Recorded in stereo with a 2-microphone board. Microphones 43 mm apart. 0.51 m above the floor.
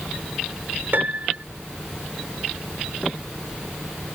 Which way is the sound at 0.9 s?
55° right (ahead or behind).